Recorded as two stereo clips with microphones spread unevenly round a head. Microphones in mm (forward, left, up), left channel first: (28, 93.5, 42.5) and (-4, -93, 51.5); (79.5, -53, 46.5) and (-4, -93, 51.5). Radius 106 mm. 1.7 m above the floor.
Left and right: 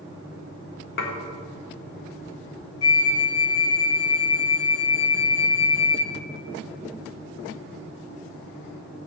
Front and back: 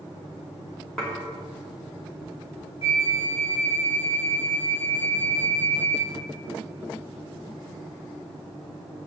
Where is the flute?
65° left, 0.9 m.